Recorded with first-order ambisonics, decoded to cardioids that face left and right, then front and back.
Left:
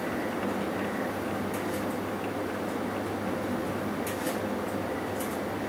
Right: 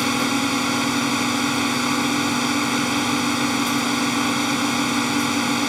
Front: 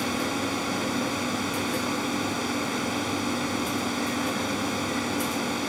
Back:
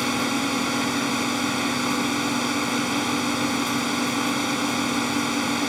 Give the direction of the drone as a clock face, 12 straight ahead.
4 o'clock.